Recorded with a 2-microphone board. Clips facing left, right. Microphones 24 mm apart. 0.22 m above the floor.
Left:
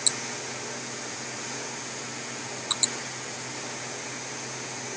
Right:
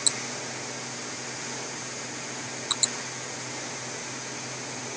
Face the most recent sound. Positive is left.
No sound to turn to.